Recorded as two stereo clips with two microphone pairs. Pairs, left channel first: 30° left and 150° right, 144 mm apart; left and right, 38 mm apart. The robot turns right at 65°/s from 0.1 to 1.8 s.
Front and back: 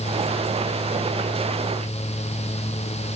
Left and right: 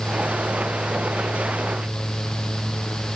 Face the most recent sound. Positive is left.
No sound to turn to.